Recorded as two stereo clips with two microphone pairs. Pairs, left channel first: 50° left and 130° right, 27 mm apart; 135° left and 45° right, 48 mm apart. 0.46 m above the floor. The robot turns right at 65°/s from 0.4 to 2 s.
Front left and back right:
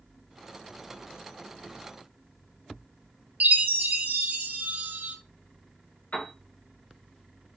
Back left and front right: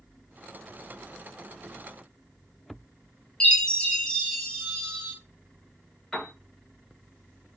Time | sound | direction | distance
3.4 | a chime | 155° right | 1.2 m
6.1 | a piano | 50° left | 1.2 m